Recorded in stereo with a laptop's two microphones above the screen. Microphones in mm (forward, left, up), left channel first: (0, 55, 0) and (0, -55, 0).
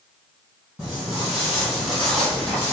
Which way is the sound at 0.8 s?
10° right (ahead or behind).